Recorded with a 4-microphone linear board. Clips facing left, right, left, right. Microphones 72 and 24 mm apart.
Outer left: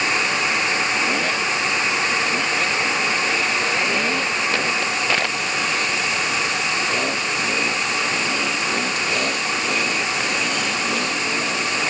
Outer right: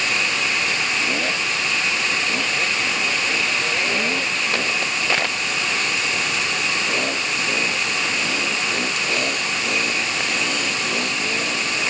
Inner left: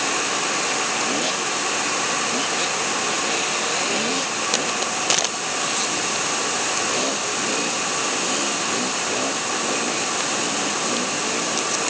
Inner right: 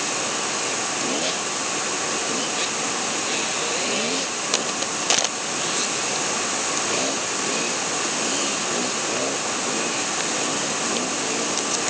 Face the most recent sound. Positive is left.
No sound to turn to.